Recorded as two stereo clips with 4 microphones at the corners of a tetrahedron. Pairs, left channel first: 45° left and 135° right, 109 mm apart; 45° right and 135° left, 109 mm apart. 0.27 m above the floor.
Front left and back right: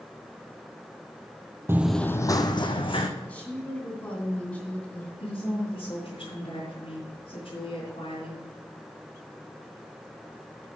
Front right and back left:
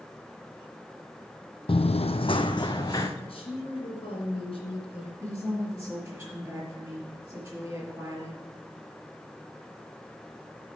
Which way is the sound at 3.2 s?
30° right.